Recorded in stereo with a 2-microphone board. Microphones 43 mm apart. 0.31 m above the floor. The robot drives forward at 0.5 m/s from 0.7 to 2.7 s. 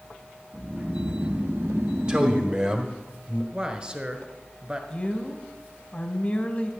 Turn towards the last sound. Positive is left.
turn(degrees=25)  # may be behind; listen again after turning